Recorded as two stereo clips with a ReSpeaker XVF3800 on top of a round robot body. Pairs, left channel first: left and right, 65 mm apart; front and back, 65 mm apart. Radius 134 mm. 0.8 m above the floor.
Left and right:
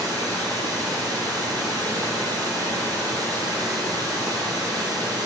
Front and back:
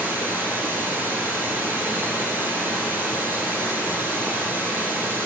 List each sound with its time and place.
0.0 s running water: 120° right, 2.0 m